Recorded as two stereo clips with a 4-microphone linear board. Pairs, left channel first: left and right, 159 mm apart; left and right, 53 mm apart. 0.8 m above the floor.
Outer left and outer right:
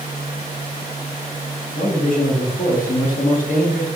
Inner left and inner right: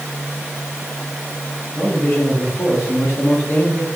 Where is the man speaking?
60° left (ahead or behind), 1.4 m.